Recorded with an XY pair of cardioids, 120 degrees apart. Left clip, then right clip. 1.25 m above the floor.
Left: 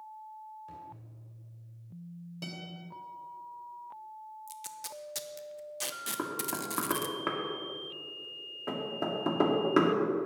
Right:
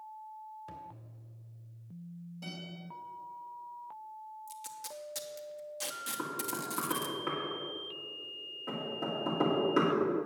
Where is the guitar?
65° left, 3 m.